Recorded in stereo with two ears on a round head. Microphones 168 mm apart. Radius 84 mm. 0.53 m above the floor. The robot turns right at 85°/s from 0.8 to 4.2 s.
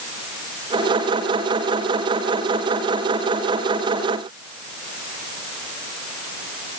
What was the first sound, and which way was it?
Only background noise.